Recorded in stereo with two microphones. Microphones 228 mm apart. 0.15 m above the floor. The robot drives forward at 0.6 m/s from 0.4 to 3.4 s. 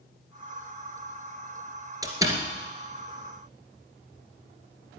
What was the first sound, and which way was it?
A door slam, 15° right (ahead or behind).